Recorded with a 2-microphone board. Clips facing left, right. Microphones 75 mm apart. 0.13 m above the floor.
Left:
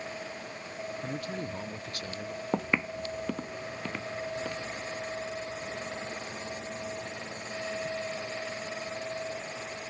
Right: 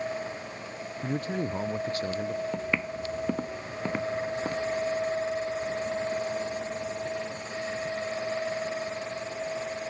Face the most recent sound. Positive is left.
turn(degrees=-30)  # may be behind; listen again after turning